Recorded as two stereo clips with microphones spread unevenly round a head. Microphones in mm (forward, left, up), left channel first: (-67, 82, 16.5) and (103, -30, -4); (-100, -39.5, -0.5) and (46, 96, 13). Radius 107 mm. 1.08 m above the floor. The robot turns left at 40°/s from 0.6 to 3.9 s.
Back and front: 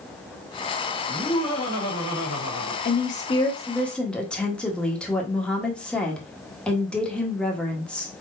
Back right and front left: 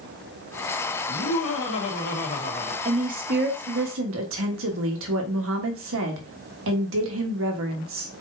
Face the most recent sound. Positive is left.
turn(degrees=60)